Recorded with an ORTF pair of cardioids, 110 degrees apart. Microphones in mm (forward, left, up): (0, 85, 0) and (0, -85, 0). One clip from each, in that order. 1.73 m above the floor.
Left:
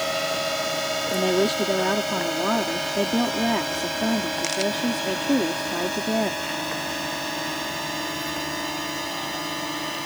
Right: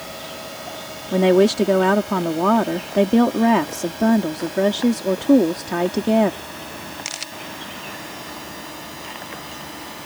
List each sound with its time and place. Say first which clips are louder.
0.0 s a drone: left 8 dB; 55° left; by 10.1 s 45° left
1.1 s a woman speaking: right 8 dB; 45° right